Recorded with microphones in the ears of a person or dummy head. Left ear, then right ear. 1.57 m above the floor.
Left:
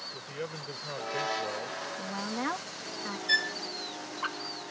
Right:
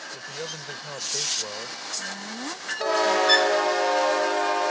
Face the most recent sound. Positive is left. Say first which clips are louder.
# right 6 dB
turn(degrees=-20)  # may be behind; listen again after turning